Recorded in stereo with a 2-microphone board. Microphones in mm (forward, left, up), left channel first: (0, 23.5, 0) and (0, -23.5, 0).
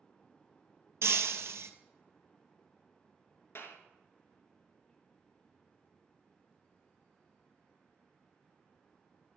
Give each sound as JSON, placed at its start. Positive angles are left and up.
{"t": 1.0, "sound": "breaking glass", "side_deg": -70, "distance_m": 1.1}
{"t": 3.5, "sound": "a clap", "side_deg": 60, "distance_m": 2.0}